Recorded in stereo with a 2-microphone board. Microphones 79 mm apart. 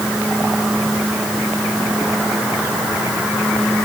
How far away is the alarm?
No alarm in this recording.